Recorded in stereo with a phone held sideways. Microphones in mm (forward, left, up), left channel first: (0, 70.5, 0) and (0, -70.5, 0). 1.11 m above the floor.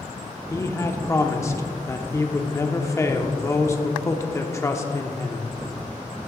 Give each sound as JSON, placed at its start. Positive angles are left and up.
{"t": 0.5, "sound": "a man speaking", "side_deg": 20, "distance_m": 0.7}